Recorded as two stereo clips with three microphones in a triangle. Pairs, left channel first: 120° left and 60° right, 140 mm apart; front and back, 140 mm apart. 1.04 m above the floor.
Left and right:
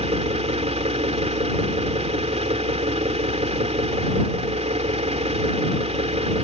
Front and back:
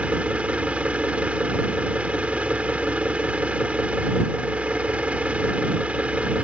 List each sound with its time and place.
0.0 s an engine running: 100° right